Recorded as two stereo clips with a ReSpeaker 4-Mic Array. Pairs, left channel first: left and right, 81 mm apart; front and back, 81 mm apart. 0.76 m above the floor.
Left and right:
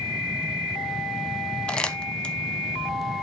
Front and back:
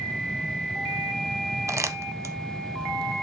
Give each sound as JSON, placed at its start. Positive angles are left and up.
{"t": 1.7, "sound": "crumpling", "azimuth_deg": 160, "distance_m": 0.7}